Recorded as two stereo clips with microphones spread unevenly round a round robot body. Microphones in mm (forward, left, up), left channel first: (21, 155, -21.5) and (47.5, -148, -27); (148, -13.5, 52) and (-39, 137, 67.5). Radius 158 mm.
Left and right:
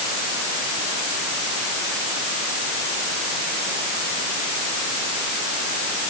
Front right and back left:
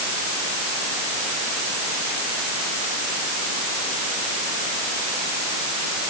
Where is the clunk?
No clunk in this recording.